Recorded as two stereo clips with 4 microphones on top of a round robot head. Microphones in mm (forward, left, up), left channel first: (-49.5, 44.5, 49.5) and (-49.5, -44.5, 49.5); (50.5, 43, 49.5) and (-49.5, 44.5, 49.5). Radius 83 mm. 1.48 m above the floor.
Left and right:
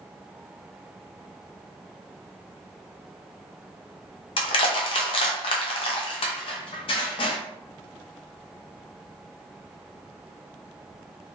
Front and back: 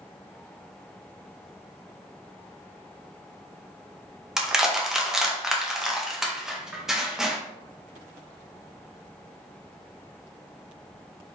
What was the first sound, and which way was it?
Crushing, 95° left.